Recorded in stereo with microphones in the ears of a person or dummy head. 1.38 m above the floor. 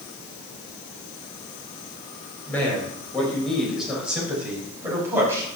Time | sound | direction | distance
2.5 | a man speaking | 10° left (ahead or behind) | 6.5 m